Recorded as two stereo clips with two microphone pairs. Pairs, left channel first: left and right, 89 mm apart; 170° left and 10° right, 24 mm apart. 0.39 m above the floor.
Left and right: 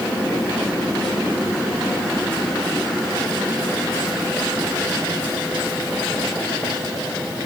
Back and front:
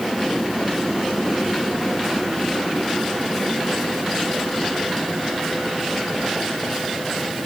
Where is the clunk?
I don't hear a clunk.